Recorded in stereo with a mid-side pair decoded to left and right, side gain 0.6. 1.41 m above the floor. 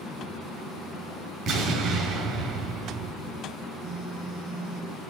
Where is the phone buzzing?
40° right, 1.8 m.